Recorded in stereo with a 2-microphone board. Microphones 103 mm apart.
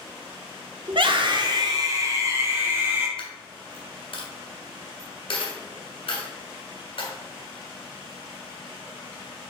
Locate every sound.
0.9 s a scream: 50° right (ahead or behind), 0.7 m; by 3.1 s 20° right (ahead or behind), 1.8 m
3.2 s a dropped coin: 65° left (ahead or behind), 1.5 m